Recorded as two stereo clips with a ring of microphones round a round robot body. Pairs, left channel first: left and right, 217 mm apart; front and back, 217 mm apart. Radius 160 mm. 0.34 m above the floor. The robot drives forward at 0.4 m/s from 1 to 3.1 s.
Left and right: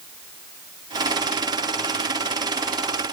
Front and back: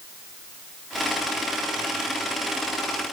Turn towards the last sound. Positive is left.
No sound to turn to.